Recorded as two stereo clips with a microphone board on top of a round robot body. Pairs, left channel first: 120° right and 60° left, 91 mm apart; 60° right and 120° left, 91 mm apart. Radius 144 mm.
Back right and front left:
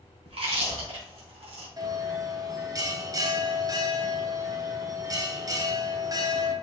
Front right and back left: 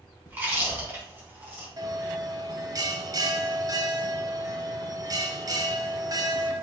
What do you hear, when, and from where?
0.3 s chewing: 50° left, 3 m
1.8 s a bell: 90° left, 1.4 m